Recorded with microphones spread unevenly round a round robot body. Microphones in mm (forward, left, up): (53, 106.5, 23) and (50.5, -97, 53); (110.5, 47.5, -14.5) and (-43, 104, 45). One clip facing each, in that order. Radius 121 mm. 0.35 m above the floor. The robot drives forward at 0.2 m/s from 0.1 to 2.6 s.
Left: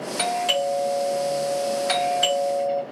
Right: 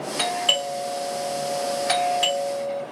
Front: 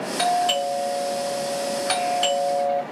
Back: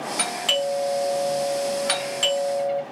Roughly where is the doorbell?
Behind.